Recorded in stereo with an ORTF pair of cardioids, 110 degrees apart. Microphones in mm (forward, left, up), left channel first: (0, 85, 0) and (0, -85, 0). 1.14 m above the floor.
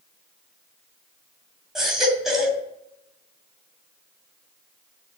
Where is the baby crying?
Straight ahead, 2.5 m.